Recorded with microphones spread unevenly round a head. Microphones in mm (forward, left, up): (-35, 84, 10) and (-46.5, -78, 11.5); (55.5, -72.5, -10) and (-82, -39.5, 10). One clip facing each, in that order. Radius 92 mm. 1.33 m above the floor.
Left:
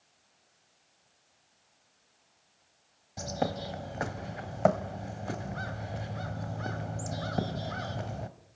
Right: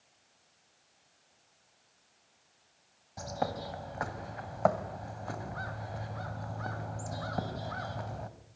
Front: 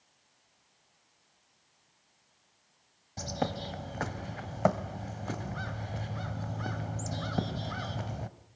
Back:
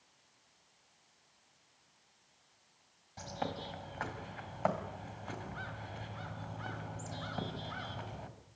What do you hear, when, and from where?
3.2 s a bird: 30° left, 1.4 m